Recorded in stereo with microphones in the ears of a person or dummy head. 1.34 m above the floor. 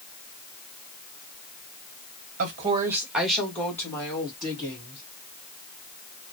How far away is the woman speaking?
About 0.7 m.